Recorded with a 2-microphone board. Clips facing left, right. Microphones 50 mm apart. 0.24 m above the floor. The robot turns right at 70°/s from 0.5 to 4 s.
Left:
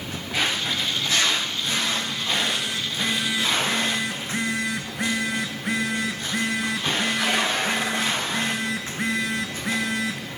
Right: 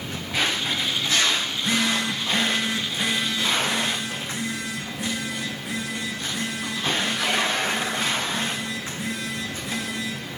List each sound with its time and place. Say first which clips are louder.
1.5 s a phone buzzing: right 2 dB; 115° right, 4.5 m; by 10.3 s 55° left, 4.5 m